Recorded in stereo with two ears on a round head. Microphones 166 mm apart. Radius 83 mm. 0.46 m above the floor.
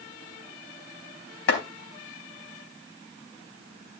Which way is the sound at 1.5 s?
60° left (ahead or behind).